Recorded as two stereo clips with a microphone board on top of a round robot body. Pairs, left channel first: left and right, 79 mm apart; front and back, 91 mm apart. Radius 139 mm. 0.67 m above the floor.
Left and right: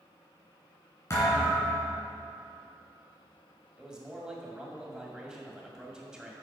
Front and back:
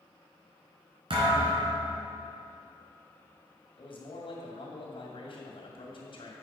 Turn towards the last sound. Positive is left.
turn(degrees=-10)